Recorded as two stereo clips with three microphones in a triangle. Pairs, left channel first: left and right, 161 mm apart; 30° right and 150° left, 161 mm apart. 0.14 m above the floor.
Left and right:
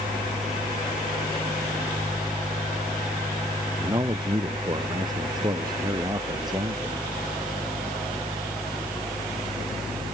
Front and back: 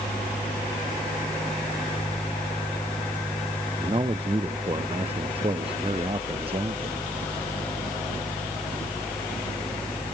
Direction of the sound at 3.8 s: 155° right.